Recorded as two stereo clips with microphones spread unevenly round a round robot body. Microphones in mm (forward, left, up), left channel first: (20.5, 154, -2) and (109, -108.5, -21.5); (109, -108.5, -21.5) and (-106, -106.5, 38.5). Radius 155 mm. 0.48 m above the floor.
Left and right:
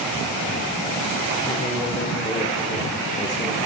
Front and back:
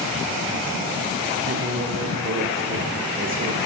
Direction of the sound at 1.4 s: 175° right.